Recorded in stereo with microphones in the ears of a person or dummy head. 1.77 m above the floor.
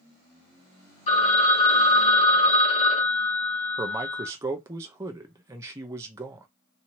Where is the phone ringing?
40° left (ahead or behind), 2.0 m.